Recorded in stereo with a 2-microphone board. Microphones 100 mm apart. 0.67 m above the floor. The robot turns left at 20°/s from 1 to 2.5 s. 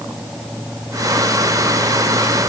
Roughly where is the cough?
No cough in this recording.